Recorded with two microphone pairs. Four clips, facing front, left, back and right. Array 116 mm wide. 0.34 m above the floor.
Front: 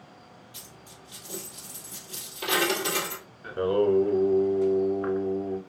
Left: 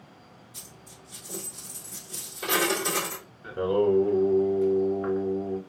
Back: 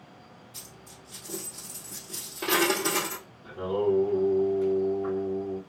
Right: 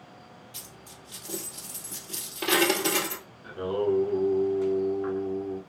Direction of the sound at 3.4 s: 15° left.